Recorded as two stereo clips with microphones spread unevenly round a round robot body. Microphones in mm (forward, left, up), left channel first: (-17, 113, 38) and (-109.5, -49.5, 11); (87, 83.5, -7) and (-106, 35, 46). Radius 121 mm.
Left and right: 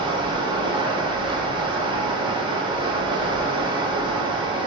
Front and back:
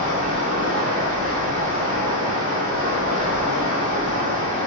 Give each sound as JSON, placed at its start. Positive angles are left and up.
{"t": 0.0, "sound": "running water", "azimuth_deg": -120, "distance_m": 1.0}